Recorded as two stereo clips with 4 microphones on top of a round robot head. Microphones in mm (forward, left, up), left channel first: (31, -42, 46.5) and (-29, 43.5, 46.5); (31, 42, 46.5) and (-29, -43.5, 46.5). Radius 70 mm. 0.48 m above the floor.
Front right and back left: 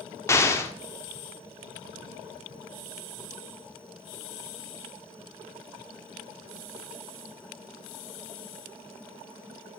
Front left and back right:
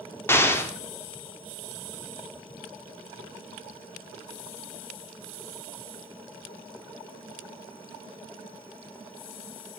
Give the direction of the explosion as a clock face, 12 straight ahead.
12 o'clock.